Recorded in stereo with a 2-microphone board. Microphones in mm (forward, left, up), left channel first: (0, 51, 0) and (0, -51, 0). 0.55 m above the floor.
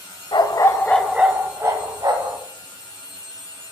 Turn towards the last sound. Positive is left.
turn(degrees=-45)  # may be behind; listen again after turning